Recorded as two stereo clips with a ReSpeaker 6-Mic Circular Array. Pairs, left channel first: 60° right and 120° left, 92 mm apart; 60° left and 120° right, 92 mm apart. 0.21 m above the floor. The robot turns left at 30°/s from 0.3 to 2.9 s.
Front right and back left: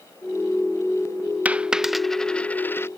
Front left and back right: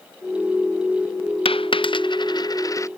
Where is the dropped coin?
45° left; by 2.9 s 5° left.